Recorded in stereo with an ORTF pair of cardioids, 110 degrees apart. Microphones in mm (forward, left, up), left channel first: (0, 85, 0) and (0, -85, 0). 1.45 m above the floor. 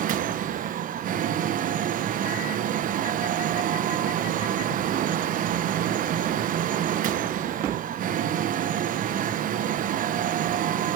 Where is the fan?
55° right, 1.0 m.